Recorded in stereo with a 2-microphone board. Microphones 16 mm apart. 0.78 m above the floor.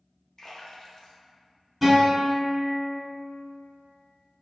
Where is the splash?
35° left (ahead or behind), 0.6 m.